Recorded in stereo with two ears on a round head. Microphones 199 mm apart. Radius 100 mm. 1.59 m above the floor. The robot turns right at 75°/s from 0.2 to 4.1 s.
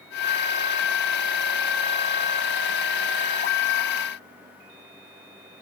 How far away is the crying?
No crying in this recording.